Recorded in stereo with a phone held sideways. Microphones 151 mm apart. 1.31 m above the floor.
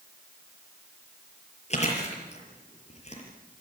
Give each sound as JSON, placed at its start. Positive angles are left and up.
{"t": 1.7, "sound": "chewing", "side_deg": 50, "distance_m": 5.5}